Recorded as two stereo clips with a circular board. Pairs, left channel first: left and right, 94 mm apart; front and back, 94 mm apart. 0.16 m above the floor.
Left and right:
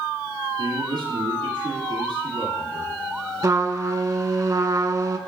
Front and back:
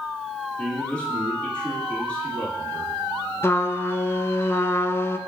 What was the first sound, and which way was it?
A man speaking, 80° right.